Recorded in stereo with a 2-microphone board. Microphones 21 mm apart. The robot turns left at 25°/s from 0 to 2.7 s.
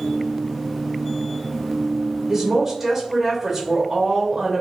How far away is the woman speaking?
About 0.9 m.